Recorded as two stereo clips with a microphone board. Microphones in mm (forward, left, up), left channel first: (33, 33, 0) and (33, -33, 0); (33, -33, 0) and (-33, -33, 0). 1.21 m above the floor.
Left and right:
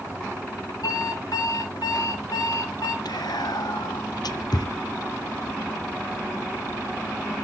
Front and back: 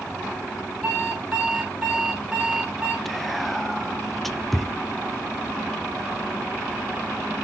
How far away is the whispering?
About 0.6 m.